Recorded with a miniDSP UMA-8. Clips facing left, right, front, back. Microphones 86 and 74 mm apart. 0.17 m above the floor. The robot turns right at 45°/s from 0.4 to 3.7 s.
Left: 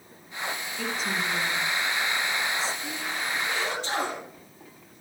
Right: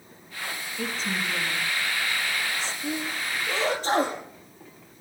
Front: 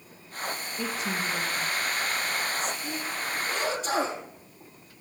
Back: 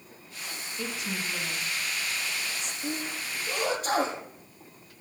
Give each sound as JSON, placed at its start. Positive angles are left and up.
{"t": 0.8, "sound": "a woman speaking", "azimuth_deg": 5, "distance_m": 1.9}
{"t": 2.8, "sound": "a sneeze", "azimuth_deg": 180, "distance_m": 6.0}